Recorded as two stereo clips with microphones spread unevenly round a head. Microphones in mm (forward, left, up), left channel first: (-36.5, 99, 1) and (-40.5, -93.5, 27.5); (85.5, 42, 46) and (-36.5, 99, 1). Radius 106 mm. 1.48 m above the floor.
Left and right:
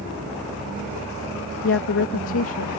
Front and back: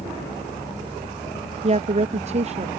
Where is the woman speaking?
110° left.